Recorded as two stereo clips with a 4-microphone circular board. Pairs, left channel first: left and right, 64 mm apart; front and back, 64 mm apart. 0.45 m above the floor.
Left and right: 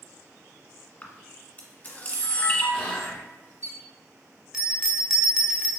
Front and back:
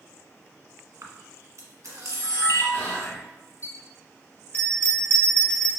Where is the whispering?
35° left, 0.9 m.